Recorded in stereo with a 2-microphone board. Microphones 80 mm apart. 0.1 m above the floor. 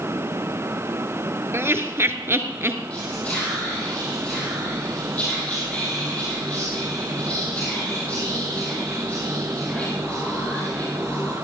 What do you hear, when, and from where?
1.5 s laughter: 30° right (ahead or behind), 1.2 m
2.9 s whispering: 15° left (ahead or behind), 3.5 m